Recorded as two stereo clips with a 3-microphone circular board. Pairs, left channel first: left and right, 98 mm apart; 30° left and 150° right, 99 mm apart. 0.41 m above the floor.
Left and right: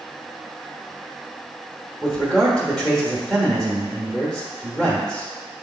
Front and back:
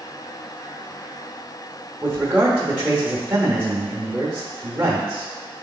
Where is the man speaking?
165° left, 0.8 m.